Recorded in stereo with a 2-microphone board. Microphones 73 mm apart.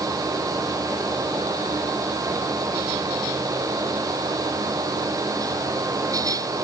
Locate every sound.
Only background noise.